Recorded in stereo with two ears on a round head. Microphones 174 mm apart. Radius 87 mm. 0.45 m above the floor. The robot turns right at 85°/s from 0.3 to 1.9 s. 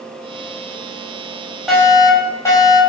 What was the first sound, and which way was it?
A fire alarm, 5° right (ahead or behind).